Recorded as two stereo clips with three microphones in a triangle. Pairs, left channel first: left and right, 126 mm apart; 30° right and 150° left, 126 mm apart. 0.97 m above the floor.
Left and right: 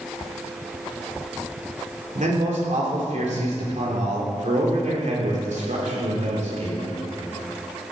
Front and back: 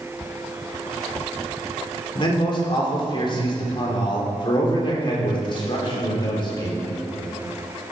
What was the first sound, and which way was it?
A man speaking, 80° right.